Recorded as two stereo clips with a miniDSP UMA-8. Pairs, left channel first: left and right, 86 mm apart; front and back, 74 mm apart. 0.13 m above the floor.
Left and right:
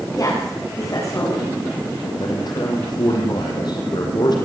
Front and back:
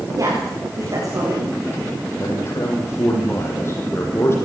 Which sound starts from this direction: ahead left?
A man speaking, at 2.2 s.